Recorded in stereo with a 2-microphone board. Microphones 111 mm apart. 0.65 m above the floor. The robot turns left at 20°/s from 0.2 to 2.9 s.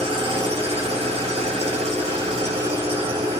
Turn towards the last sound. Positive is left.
turn(degrees=-115)